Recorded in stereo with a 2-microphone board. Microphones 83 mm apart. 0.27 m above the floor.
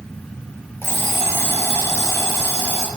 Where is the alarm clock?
25° left (ahead or behind), 4 m.